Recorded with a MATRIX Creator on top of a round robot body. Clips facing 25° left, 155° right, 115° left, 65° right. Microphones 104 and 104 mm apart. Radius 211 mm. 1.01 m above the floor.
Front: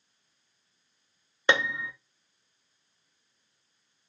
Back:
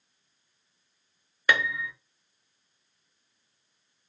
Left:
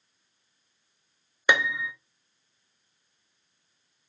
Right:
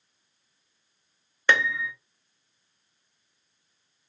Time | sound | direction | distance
1.5 | a piano | 50° left | 0.9 m